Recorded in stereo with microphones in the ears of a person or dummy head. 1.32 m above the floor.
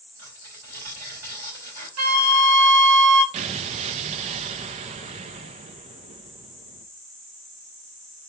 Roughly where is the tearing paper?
Right.